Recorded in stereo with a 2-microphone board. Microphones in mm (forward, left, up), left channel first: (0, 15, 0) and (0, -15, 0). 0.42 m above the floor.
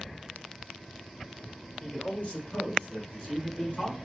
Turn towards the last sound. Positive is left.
turn(degrees=50)  # may be behind; listen again after turning